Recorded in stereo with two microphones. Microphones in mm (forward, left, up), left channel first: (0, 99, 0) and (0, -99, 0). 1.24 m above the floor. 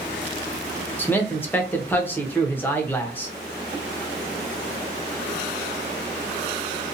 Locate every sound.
1.0 s a man speaking: 10° left (ahead or behind), 0.7 m